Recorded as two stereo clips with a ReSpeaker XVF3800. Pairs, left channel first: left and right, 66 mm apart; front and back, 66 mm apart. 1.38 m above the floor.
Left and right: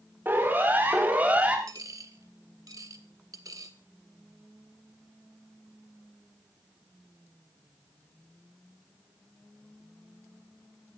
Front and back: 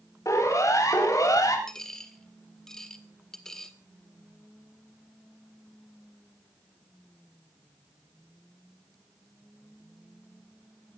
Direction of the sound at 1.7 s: 80° right.